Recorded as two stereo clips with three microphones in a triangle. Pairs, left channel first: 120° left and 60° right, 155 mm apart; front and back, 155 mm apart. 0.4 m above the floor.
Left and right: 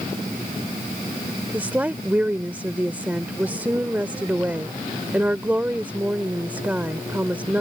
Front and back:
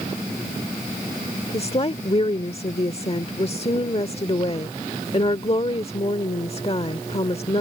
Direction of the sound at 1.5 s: 15° left.